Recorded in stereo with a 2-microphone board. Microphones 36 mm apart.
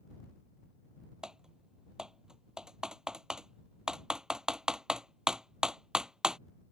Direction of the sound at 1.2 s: 25° right (ahead or behind).